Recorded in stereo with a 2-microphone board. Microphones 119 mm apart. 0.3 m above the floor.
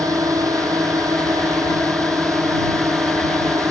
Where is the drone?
25° right (ahead or behind).